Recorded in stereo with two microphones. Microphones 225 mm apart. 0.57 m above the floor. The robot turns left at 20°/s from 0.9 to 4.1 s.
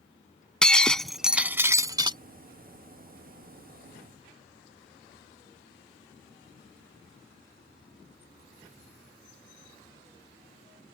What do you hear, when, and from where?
0.6 s breaking glass: 5° left (ahead or behind); by 2.2 s 20° right (ahead or behind)